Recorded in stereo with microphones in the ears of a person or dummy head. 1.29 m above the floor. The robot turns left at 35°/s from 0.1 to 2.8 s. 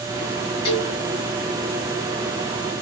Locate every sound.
0.7 s a cowbell: 30° left (ahead or behind), 3 m; by 0.9 s 40° left (ahead or behind), 3 m